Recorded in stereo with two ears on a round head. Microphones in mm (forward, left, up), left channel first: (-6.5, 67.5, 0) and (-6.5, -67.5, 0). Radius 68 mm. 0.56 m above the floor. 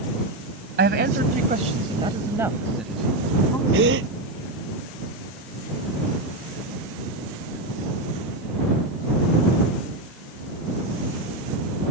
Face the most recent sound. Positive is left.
turn(degrees=-80)